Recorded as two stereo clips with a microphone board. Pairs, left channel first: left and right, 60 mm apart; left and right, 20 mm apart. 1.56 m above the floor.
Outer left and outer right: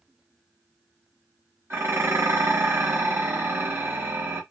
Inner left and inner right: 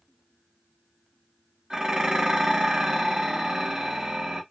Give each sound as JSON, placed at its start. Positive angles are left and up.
{"t": 1.7, "sound": "dishes clattering", "side_deg": -45, "distance_m": 0.9}